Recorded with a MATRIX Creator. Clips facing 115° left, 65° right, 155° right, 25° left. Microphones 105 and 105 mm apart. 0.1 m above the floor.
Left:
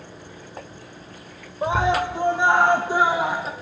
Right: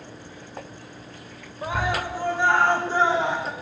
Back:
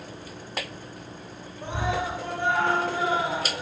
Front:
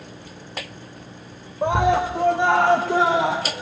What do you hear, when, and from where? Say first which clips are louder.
1.6 s a scream: left 6 dB, front 10 dB; 50° left, 5.5 m; by 3.5 s 30° left, 5.5 m